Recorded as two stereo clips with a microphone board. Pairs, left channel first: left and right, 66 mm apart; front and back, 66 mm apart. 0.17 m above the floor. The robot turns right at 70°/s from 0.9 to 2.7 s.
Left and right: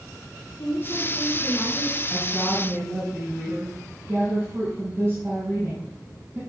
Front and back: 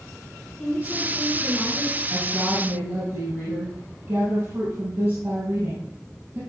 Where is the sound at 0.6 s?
80° left, 4.5 m; by 2.0 s 160° left, 4.5 m.